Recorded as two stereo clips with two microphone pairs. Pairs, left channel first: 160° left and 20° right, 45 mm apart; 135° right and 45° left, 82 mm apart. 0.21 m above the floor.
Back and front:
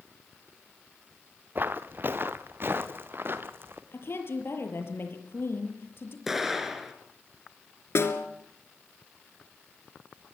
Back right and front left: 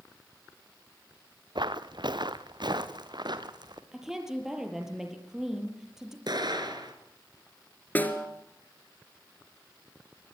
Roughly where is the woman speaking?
Behind left.